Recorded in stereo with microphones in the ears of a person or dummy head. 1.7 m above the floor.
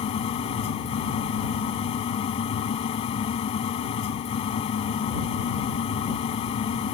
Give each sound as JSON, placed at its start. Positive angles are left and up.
{"t": 0.0, "sound": "a fan", "side_deg": 40}